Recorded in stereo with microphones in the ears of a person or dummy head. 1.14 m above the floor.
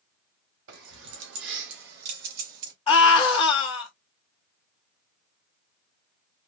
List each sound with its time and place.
0.7 s keys jangling: 80° right, 1.8 m; by 2.7 s 55° right (ahead or behind), 2 m
2.9 s a scream: 35° left (ahead or behind), 1.9 m